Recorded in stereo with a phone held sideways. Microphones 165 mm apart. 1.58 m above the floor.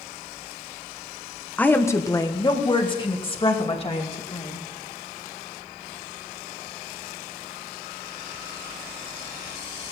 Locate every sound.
1.6 s a woman speaking: 10° left (ahead or behind), 1.2 m; by 4.6 s 40° left (ahead or behind), 3 m